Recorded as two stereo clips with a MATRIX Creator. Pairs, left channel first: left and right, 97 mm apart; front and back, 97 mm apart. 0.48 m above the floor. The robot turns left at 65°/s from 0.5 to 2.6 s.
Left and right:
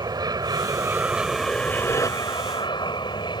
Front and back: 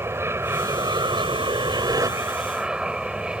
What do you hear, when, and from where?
0.0 s an aircraft: 120° right; by 3.4 s 100° left